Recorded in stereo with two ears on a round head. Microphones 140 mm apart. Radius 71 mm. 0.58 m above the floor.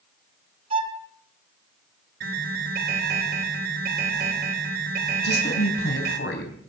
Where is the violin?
35° right (ahead or behind), 1.7 m.